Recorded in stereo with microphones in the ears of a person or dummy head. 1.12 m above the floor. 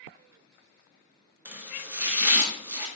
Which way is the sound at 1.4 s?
10° right (ahead or behind).